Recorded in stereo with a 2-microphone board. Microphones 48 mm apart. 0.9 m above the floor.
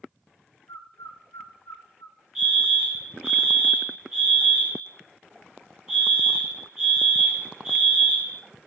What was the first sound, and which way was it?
A bird, 75° left (ahead or behind).